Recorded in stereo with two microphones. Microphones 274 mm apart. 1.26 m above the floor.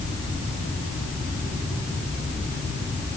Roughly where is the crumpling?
I don't hear crumpling.